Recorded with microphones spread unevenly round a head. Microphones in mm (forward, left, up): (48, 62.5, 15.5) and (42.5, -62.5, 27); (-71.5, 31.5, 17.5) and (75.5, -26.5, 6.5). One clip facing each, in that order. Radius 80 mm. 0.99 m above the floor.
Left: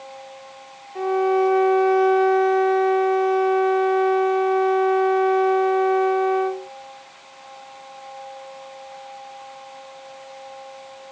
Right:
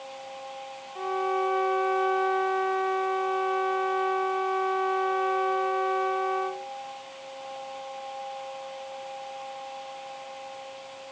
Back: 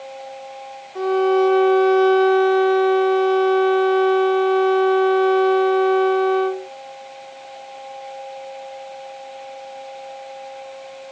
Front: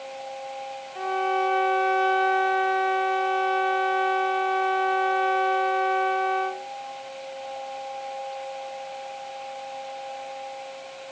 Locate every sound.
0.9 s a violin: 135° left